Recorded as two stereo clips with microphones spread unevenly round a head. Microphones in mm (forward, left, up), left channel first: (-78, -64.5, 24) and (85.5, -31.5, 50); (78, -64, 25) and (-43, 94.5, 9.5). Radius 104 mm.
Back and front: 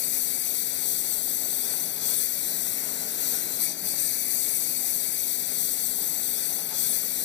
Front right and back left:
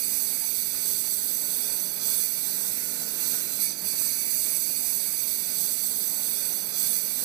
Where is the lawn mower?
155° left.